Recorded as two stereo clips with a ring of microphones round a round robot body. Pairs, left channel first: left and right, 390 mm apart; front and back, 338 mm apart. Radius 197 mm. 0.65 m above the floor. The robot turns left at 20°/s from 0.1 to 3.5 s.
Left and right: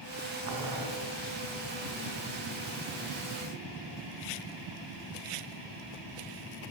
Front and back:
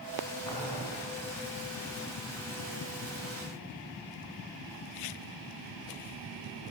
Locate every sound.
0.5 s boiling: 45° right, 2.5 m; by 0.9 s 55° right, 2.5 m